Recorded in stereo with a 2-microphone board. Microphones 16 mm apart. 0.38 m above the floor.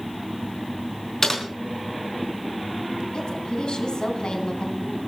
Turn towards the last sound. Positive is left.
turn(degrees=65)  # may be behind; listen again after turning